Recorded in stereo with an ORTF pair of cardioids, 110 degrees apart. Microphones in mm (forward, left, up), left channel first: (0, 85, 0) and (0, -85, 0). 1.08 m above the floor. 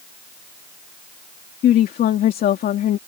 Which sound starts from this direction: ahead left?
A woman speaking, at 1.6 s.